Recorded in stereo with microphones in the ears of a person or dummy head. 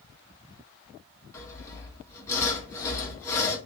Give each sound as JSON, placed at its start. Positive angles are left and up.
{"t": 1.3, "sound": "sawing", "side_deg": 15, "distance_m": 1.1}